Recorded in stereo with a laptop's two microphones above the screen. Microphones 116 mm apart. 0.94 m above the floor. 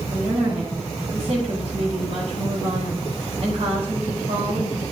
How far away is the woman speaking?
About 2.5 m.